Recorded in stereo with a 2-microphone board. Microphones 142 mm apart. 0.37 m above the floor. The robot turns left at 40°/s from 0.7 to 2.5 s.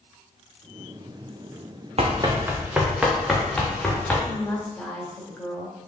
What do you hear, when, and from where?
2.0 s running footsteps: 50° right (ahead or behind), 1.6 m; by 4.2 s 5° left (ahead or behind), 3.5 m
4.3 s a woman speaking: 10° left (ahead or behind), 1.9 m